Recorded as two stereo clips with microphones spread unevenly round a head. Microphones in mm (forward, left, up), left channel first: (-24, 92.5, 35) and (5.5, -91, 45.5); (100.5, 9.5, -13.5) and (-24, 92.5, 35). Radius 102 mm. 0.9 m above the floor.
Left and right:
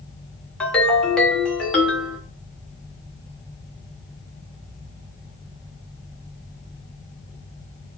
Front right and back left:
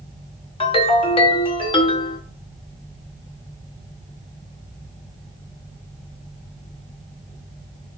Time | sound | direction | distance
0.6 | a ringtone | 15° left | 1.0 m